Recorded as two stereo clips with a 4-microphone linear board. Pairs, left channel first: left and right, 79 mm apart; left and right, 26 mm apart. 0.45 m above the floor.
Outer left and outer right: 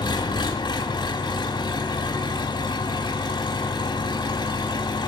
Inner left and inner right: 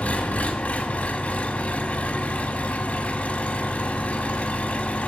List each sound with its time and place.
0.0 s an engine running: 75° left (ahead or behind), 0.8 m